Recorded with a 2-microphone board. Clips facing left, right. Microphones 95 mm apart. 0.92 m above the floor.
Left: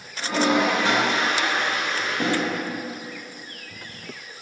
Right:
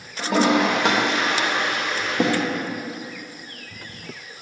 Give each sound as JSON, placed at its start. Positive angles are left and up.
{"t": 0.2, "sound": "a toilet flushing", "side_deg": -70, "distance_m": 0.7}